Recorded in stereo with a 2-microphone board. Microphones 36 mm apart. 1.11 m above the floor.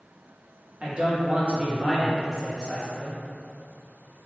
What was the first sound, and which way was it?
A man speaking, 30° right (ahead or behind).